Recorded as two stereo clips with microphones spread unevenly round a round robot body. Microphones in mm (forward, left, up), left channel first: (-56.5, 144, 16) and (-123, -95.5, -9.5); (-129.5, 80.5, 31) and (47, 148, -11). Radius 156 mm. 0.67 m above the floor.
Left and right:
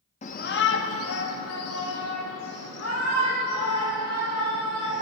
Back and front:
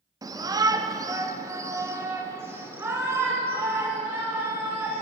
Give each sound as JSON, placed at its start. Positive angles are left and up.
{"t": 0.2, "sound": "a shout", "azimuth_deg": 25, "distance_m": 0.6}